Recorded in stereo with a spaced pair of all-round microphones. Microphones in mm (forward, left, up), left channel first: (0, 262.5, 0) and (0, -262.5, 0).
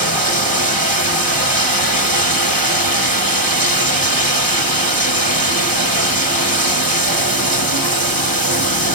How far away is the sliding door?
No sliding door in this recording.